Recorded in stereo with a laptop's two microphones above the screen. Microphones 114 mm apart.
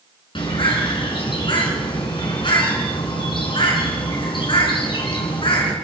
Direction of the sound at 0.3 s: 50° left (ahead or behind).